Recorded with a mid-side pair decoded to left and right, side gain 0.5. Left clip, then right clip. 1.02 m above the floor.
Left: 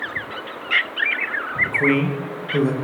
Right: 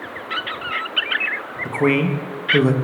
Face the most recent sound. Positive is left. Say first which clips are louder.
# right 4 dB
turn(degrees=-30)